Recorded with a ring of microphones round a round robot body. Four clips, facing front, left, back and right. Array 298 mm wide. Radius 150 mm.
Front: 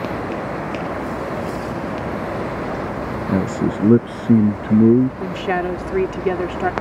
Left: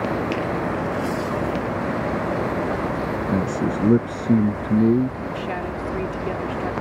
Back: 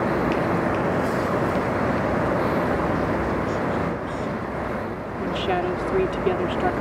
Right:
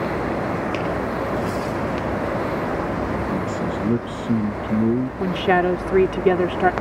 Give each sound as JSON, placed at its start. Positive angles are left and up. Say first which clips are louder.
{"t": 3.3, "sound": "a man speaking", "louder": "left 1 dB, front 4 dB", "azimuth_deg": 20}
{"t": 5.2, "sound": "a woman speaking", "louder": "right 8 dB, front 2 dB", "azimuth_deg": -75}